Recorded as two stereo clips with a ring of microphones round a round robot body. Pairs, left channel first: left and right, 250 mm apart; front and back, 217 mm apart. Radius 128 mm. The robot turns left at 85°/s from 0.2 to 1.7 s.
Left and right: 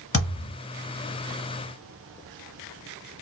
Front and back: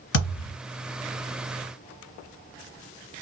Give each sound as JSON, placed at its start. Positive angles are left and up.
{"t": 0.1, "sound": "a thud", "azimuth_deg": 25, "distance_m": 1.9}